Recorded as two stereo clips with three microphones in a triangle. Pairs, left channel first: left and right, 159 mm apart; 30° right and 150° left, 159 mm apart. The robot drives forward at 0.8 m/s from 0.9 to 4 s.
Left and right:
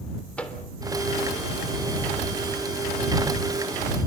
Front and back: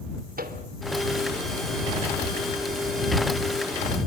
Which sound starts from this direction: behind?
A microwave, at 0.4 s.